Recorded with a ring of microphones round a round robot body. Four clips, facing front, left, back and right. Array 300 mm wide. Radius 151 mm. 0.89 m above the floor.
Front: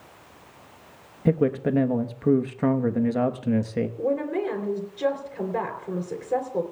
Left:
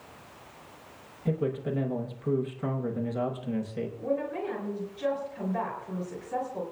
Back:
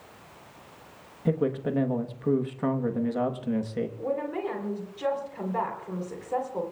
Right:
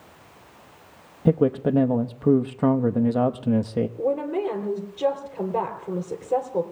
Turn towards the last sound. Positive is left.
turn(degrees=-60)